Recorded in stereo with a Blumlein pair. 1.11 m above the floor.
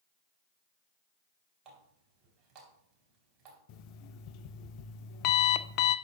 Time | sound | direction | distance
1.6 | a running tap | 30° right | 3.5 m
3.7 | an alarm clock | 40° left | 0.5 m